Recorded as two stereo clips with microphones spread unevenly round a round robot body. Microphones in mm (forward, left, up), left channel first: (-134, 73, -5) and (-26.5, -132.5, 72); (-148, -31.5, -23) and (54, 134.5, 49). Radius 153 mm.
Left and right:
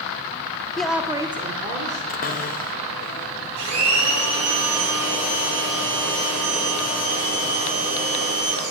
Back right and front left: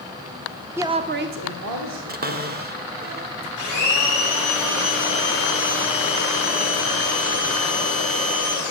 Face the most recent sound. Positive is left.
turn(degrees=-60)